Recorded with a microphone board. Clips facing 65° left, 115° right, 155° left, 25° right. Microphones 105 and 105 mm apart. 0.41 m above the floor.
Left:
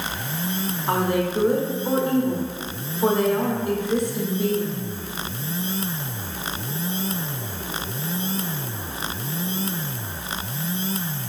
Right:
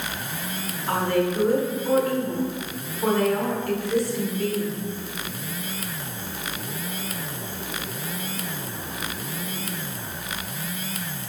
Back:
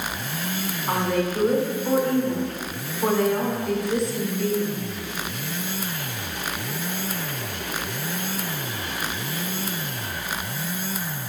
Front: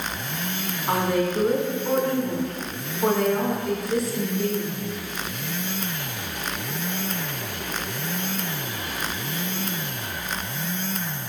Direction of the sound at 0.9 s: 65° left.